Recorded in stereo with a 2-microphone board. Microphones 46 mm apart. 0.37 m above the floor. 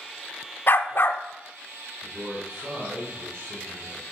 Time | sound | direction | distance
0.7 | a dog barking | 50° left (ahead or behind) | 0.7 m
2.0 | a man speaking | 65° right (ahead or behind) | 2.5 m